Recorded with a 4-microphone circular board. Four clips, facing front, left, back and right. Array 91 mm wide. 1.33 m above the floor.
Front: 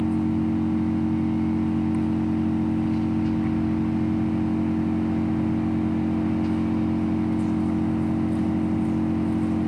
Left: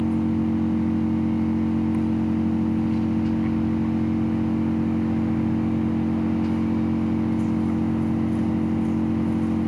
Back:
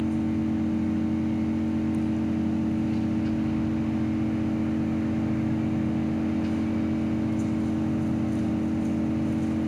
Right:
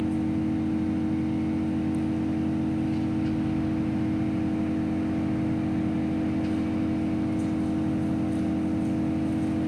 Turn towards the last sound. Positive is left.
turn(degrees=50)